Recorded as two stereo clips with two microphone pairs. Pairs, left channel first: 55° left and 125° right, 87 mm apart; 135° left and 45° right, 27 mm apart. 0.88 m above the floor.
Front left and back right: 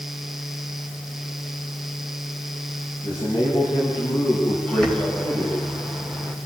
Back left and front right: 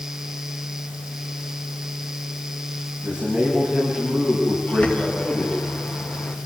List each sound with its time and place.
3.0 s a man speaking: 30° left, 6.5 m
4.7 s a bird: 135° left, 2.5 m